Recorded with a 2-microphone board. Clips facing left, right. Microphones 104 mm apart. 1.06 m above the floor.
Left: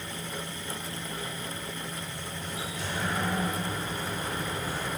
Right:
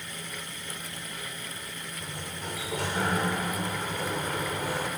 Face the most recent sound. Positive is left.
turn(degrees=-75)  # may be behind; listen again after turning